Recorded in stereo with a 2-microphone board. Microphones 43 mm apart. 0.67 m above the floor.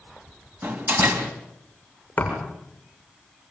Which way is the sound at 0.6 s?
60° right (ahead or behind).